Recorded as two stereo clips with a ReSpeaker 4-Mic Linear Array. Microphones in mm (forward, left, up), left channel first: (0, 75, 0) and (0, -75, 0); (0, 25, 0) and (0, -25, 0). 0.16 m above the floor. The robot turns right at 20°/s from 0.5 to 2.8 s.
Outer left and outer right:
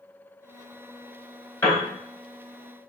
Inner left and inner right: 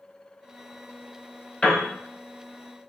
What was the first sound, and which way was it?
A piano, 20° left (ahead or behind).